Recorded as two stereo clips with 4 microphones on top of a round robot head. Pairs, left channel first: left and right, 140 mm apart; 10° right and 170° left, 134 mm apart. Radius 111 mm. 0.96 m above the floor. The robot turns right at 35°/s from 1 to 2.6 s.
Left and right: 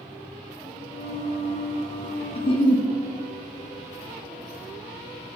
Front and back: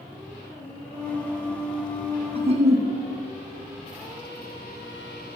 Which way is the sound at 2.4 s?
130° left.